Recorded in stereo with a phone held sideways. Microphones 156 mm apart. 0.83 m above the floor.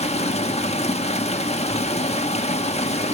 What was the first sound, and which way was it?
Running water, 45° left (ahead or behind).